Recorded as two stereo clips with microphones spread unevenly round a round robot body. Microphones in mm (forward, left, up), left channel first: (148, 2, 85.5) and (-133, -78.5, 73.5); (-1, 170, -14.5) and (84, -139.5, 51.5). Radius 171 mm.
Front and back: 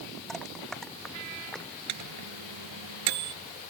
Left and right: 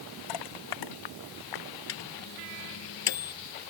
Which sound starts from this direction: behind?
A microwave, at 1.9 s.